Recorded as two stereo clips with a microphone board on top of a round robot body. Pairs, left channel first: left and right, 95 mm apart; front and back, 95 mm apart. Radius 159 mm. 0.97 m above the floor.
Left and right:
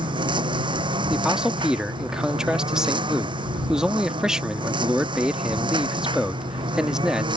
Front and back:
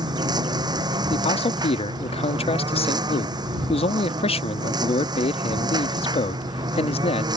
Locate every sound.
0.0 s a lawn mower: 130° right
1.1 s a man speaking: 5° right